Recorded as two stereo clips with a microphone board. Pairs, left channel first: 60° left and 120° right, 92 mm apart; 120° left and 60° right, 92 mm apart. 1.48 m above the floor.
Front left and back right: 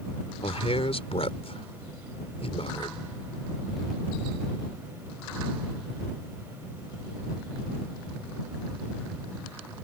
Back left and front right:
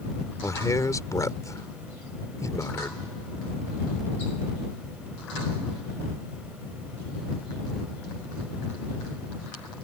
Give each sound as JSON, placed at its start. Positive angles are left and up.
{"t": 0.4, "sound": "a man speaking", "azimuth_deg": 65}